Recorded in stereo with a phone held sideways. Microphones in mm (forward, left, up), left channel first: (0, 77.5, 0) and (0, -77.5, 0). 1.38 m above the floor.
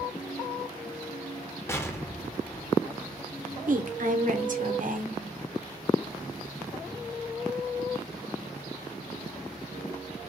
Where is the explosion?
15° left (ahead or behind), 0.6 m.